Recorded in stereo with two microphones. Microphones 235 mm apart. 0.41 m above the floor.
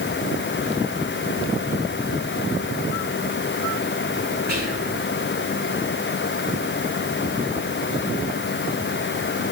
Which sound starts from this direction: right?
Whispering, at 4.5 s.